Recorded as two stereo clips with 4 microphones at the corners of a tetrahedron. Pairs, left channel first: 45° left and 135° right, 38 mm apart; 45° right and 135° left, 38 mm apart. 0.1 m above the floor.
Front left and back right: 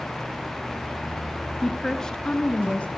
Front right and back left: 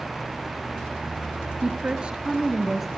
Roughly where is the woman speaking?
Behind left.